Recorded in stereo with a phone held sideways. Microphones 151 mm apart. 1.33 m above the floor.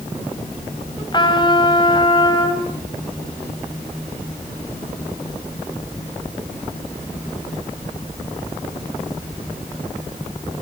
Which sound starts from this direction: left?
A trumpet, at 1.1 s.